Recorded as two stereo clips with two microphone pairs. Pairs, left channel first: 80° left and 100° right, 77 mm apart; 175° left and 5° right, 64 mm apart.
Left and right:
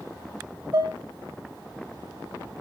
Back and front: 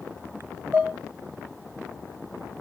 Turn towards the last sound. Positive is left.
turn(degrees=-60)